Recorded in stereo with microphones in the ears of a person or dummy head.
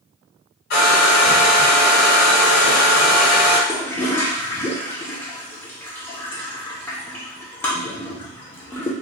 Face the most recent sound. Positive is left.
turn(degrees=10)  # may be behind; listen again after turning